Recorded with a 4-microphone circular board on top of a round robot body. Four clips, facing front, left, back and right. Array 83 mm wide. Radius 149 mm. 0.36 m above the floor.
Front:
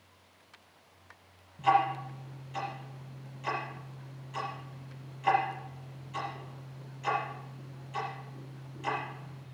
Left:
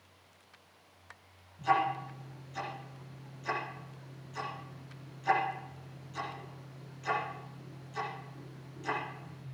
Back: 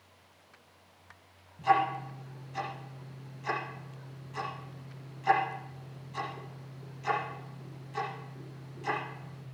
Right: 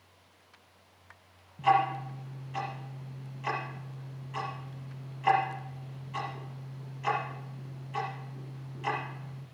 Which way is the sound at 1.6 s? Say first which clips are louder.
Right 4 dB, front 1 dB; 80° right.